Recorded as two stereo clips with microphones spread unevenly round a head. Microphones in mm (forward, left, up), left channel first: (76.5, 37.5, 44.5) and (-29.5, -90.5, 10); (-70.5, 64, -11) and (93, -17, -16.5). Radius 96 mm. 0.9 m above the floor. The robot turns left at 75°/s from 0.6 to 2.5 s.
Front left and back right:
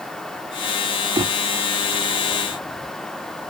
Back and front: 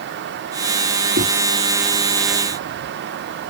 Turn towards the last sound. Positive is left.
turn(degrees=-165)